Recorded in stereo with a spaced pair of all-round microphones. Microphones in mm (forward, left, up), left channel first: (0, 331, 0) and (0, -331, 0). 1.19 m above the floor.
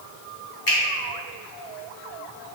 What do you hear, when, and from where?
0.7 s a finger snap: 40° left (ahead or behind), 1.3 m